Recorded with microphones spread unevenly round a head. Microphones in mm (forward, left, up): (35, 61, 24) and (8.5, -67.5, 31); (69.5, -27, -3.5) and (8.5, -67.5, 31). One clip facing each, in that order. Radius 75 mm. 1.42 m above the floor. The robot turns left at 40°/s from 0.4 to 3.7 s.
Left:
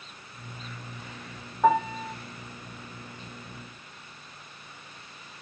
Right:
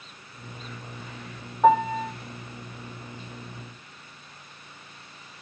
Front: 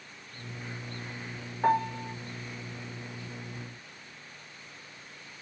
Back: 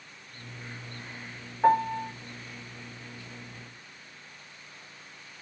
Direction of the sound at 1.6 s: 175° right.